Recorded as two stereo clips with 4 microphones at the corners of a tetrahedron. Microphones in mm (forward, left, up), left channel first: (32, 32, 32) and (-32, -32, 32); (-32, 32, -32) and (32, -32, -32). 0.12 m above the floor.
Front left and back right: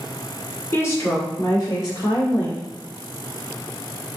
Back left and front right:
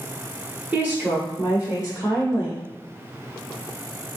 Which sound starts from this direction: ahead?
A woman speaking, at 0.7 s.